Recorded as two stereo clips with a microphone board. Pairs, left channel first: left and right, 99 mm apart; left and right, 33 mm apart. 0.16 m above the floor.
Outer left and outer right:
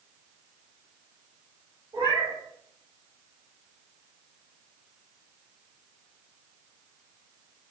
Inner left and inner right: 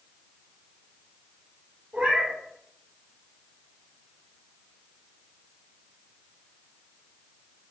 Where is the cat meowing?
60° right (ahead or behind), 1.4 m.